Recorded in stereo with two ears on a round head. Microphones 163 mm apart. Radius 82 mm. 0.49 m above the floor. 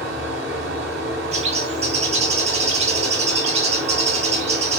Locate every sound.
0.0 s running water: 75° right (ahead or behind), 1.5 m
1.3 s a bird: 35° right (ahead or behind), 0.6 m